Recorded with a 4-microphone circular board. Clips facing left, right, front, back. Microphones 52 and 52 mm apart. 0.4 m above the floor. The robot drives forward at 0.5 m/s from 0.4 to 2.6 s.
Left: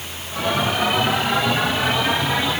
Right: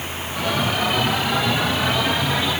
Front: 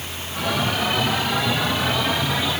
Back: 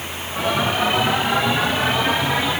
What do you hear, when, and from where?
Only background noise.